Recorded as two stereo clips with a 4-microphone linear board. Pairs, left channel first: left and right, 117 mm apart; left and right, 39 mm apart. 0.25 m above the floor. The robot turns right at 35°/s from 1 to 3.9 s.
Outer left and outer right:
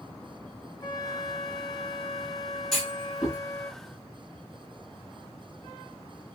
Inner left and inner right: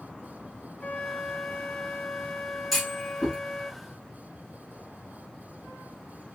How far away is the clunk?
About 1.6 m.